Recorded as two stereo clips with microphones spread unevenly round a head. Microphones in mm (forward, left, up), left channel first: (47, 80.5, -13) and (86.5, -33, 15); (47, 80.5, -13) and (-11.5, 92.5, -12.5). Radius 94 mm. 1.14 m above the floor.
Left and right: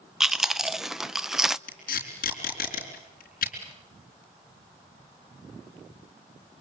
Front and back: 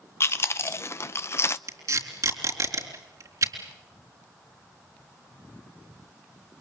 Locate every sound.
0.2 s chewing: 25° left, 0.7 m
1.7 s tape being pulled: 145° left, 4 m